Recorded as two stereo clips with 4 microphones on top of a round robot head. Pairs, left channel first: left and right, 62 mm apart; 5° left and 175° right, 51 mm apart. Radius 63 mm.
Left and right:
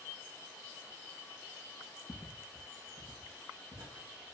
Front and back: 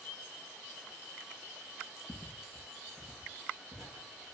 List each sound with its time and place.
2.1 s footsteps: 50° left, 0.6 m; by 4.3 s 90° right, 1.1 m